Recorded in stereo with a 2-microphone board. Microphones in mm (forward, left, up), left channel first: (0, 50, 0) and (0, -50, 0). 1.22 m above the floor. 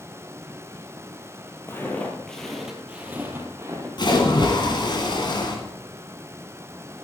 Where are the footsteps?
25° left (ahead or behind), 1.8 m; by 3.9 s 30° right (ahead or behind), 2 m.